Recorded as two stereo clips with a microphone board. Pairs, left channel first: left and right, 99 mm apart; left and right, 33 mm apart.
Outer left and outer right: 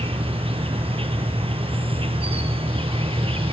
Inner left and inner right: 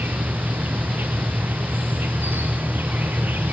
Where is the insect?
75° right (ahead or behind), 1.1 m.